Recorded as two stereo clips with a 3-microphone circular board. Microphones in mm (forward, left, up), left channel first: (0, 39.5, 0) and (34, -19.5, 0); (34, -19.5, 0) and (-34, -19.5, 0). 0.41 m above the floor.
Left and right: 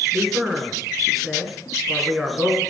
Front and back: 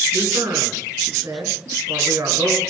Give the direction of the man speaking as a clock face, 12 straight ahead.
5 o'clock.